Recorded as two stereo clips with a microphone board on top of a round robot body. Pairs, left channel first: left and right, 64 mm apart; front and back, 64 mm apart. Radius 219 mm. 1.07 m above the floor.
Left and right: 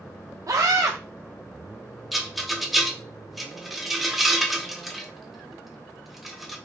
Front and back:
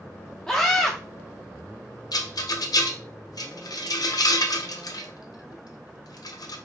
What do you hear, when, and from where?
0.5 s a scream: 75° right, 0.8 m
2.1 s a rattle: straight ahead, 0.7 m